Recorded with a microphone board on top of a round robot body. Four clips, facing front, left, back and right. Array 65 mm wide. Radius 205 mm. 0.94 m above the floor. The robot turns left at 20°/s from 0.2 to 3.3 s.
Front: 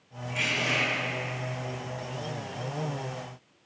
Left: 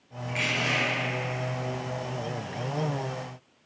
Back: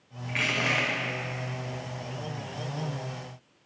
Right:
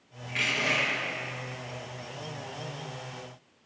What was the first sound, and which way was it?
Crushing, 175° left.